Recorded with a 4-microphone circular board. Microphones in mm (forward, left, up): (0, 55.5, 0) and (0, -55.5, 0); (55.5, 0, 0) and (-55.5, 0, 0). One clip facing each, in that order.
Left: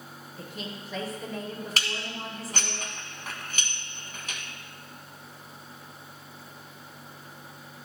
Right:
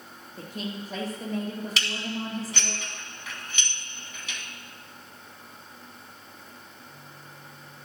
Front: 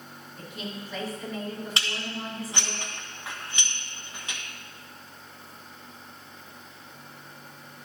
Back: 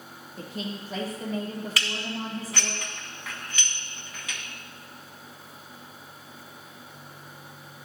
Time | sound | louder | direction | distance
0.4 | a woman speaking | right 5 dB, back 3 dB | 135° right | 3.5 m
1.8 | dishes clattering | right 3 dB, back 2 dB | 60° left | 1.4 m